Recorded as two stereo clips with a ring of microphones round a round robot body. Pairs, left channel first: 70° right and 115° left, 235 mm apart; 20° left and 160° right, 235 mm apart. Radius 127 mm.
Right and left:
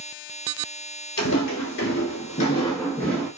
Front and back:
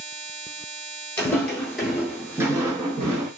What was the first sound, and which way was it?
Footsteps, 55° right.